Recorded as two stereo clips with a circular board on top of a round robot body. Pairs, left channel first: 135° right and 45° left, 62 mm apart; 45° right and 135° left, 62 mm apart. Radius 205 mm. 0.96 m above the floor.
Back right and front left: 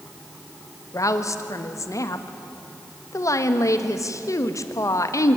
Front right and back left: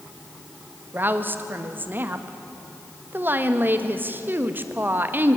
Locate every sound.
0.9 s a woman speaking: 165° right, 1.6 m